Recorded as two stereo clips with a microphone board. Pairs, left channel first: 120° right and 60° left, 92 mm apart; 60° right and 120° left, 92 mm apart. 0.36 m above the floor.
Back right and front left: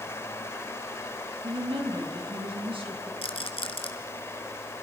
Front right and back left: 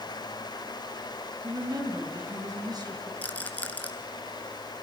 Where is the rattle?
135° right, 1.7 m.